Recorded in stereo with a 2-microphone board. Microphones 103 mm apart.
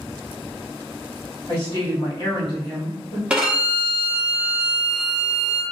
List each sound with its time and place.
1.5 s a woman speaking: 55° left (ahead or behind), 1.7 m
3.3 s a violin: 10° right (ahead or behind), 0.8 m